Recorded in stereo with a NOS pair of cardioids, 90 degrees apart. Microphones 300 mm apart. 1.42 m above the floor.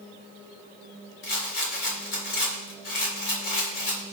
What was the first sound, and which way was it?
A rattle, 45° left.